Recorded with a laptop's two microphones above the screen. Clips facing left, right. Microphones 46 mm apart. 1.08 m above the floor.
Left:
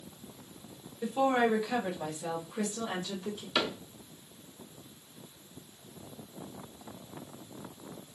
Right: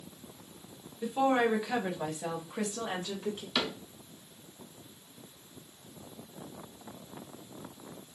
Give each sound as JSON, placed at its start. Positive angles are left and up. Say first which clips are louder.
{"t": 1.0, "sound": "a woman speaking", "louder": "even", "side_deg": 5, "distance_m": 1.1}
{"t": 3.5, "sound": "a cupboard door", "louder": "left 3 dB", "side_deg": 20, "distance_m": 0.8}